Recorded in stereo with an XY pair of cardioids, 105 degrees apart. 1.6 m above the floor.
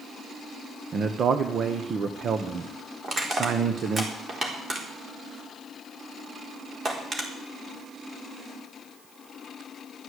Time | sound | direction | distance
0.9 | a man speaking | 50° right | 1.2 m
3.0 | crushing | 35° right | 4 m